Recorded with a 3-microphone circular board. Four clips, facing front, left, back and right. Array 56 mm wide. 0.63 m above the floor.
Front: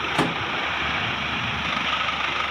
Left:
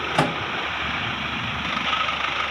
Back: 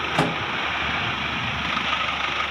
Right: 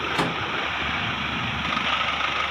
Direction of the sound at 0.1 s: 90° left.